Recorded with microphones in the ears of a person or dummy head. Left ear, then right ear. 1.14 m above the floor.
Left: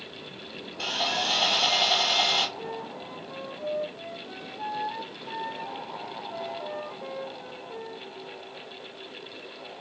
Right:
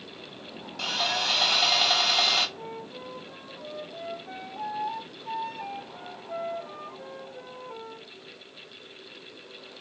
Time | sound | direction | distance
0.8 | sawing | 85° right | 2.5 m
2.6 | a flute | 60° right (ahead or behind) | 1.7 m